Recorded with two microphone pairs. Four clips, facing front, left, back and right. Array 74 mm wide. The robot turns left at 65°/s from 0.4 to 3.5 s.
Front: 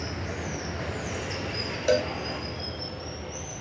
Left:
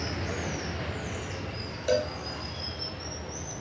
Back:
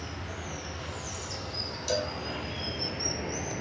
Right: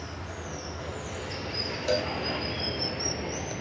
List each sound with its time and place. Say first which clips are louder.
0.0 s running water: left 5 dB, front 5 dB; 55° left, 1.7 m; by 3.6 s 145° right, 1.7 m
1.9 s a cowbell: left 1 dB, front 7 dB; 5° left, 1.7 m; by 3.5 s 100° right, 1.7 m